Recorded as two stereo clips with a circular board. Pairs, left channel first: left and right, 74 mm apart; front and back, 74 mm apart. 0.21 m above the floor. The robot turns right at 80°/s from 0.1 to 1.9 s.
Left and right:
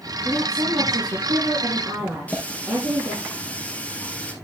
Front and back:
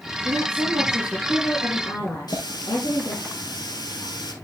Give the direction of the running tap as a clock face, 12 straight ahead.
11 o'clock.